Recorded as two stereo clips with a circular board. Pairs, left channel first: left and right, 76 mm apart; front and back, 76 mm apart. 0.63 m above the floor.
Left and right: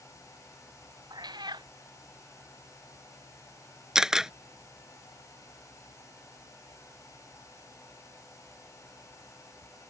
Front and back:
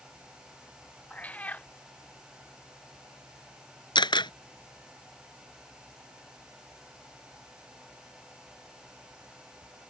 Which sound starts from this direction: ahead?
A camera shutter, at 4.0 s.